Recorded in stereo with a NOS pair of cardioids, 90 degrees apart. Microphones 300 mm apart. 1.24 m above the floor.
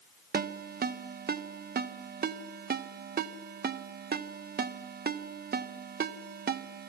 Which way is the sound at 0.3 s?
30° right.